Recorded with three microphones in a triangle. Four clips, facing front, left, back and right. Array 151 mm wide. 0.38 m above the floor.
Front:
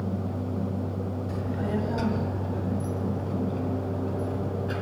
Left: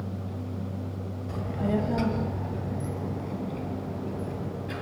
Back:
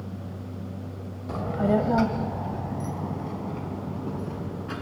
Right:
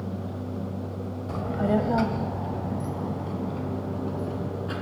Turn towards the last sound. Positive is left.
turn(degrees=-155)